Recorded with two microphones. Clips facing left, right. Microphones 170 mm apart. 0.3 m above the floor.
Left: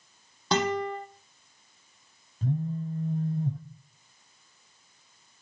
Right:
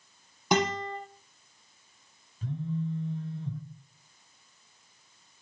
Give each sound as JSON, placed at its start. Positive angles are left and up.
{"t": 0.5, "sound": "a guitar", "side_deg": -15, "distance_m": 8.0}
{"t": 2.4, "sound": "a phone buzzing", "side_deg": 45, "distance_m": 1.3}